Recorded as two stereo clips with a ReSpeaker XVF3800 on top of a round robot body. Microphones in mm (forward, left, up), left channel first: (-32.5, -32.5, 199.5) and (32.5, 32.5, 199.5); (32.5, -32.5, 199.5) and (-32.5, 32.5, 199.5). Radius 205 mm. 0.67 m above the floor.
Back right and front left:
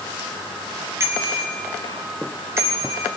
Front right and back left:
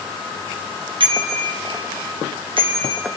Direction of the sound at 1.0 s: 110° left.